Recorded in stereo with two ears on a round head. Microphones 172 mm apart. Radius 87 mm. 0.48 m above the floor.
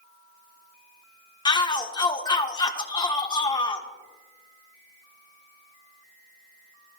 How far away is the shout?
About 1.2 m.